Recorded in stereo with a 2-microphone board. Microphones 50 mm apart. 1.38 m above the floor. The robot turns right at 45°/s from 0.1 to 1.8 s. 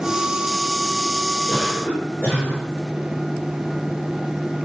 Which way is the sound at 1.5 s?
Centre (ahead or behind).